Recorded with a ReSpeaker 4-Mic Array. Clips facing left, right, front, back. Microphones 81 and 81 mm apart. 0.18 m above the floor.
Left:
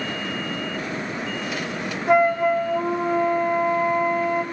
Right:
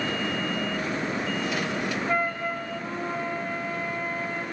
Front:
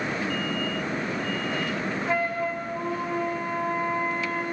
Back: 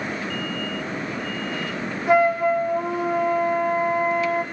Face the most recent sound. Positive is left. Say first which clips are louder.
# left 14 dB, back 11 dB
turn(degrees=105)